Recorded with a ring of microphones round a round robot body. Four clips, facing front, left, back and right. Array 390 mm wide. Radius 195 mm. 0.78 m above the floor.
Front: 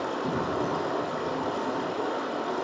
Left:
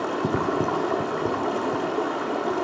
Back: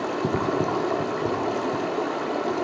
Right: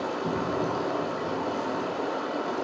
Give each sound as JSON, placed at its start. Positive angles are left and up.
{"t": 0.0, "sound": "running water", "azimuth_deg": 130, "distance_m": 1.2}